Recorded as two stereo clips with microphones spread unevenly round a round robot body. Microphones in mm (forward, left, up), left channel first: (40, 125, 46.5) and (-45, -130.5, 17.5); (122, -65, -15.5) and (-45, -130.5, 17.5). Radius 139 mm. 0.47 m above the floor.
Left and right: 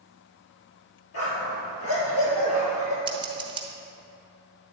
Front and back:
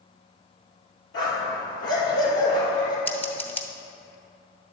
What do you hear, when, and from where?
1.1 s a dog barking: 35° left, 3 m
3.1 s scissors: 45° right, 1.1 m